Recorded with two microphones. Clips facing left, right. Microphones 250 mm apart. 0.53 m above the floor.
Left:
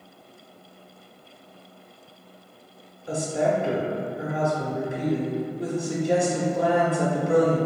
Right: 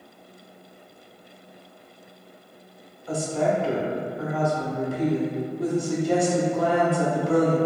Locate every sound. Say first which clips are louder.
3.1 s a woman speaking: even; 20° left (ahead or behind), 0.8 m